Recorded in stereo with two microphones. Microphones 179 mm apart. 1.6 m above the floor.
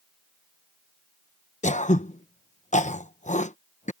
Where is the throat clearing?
45° left (ahead or behind).